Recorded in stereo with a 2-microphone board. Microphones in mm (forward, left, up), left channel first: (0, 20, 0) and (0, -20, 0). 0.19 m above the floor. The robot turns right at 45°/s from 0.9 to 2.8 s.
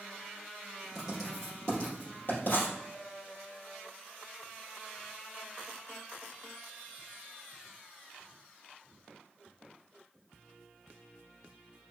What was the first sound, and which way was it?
Writing, 10° right (ahead or behind).